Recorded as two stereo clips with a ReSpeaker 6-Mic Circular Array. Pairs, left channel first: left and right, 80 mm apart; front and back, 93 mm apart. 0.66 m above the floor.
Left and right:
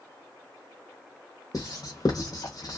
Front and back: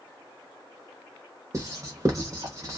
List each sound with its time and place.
1.5 s writing: 125° left, 0.8 m